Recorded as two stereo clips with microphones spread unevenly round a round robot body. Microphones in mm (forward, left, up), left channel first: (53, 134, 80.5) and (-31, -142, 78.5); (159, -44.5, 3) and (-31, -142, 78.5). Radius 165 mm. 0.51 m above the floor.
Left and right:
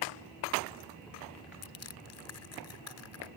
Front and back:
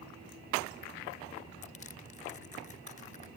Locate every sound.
1.6 s crushing: 55° left